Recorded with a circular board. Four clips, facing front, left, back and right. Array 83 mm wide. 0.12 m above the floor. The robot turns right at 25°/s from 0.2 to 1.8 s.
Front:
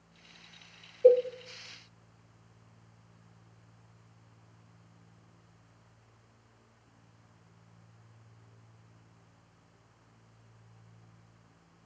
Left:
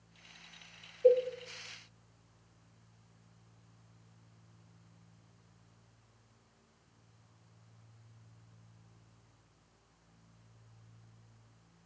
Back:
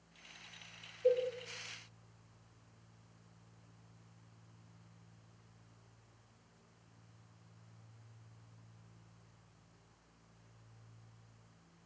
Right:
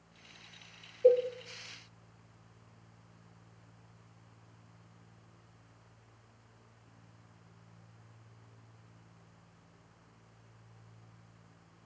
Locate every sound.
1.0 s a cowbell: 15° right, 0.5 m; by 1.2 s 10° right, 0.5 m